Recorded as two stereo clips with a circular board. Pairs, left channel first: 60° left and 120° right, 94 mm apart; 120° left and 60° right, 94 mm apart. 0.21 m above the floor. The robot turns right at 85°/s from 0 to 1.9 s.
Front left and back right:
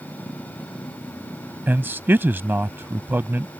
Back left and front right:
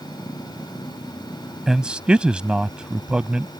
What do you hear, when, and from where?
1.7 s a man speaking: 140° right; by 3.5 s 120° right